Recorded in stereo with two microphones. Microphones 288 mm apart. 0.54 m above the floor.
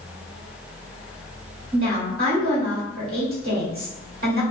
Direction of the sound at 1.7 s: 45° right (ahead or behind).